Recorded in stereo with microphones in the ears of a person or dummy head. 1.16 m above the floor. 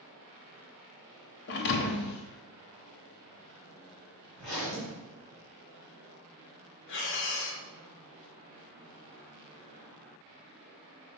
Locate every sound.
1.5 s a thud: 50° left (ahead or behind), 0.9 m
4.3 s a zipper: 70° left (ahead or behind), 3.5 m
6.9 s breathing: 60° left (ahead or behind), 1.4 m